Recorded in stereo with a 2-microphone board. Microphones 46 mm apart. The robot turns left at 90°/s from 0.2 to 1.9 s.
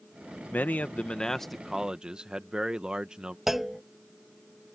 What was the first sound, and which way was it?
A man speaking, 90° left.